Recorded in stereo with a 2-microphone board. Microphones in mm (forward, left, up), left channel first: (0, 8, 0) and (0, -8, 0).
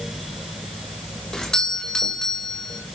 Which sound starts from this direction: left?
A doorbell, at 1.3 s.